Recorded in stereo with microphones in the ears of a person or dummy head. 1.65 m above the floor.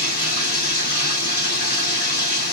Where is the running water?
55° left (ahead or behind), 4.5 m.